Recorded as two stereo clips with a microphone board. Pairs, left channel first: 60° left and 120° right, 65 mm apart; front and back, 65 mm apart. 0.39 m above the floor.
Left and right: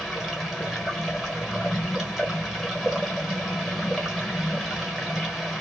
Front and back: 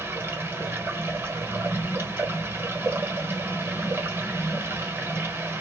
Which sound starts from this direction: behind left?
Running water, at 0.0 s.